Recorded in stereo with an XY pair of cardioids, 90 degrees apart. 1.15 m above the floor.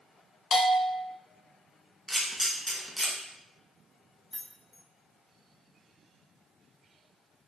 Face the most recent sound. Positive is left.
turn(degrees=15)